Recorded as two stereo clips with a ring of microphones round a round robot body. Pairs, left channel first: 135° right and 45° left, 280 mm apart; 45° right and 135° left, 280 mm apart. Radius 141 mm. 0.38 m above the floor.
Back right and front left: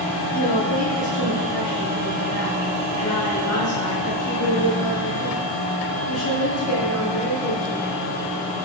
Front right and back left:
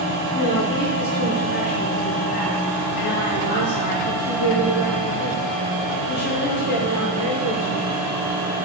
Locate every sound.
0.3 s a woman speaking: 95° right, 5.5 m